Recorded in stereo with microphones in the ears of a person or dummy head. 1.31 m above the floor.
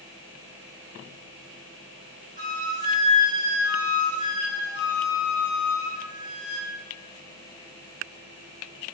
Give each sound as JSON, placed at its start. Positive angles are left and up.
{"t": 2.4, "sound": "a flute", "side_deg": -25, "distance_m": 0.5}